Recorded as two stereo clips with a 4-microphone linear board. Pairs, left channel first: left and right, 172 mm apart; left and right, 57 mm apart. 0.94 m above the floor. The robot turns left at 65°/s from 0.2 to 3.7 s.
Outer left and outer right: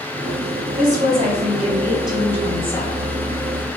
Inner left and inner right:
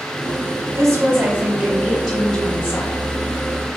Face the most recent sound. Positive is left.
turn(degrees=80)